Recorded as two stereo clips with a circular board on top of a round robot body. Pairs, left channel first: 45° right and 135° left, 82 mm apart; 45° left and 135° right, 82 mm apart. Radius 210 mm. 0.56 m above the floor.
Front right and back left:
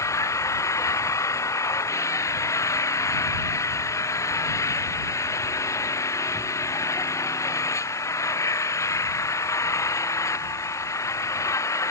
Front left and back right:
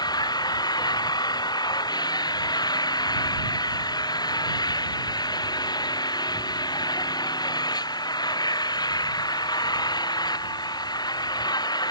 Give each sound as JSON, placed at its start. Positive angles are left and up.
{"t": 0.0, "sound": "an engine running", "azimuth_deg": 10}